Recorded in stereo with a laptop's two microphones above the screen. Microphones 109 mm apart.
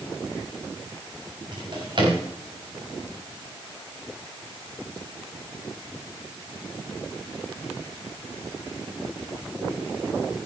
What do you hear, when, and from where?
1.5 s a drawer: 50° right (ahead or behind), 4 m